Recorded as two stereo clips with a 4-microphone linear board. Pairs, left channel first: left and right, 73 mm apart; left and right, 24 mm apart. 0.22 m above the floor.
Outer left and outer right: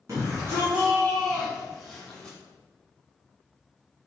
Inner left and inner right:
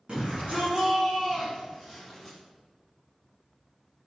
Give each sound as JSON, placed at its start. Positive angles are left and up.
{"t": 0.1, "sound": "a shout", "side_deg": -45, "distance_m": 2.5}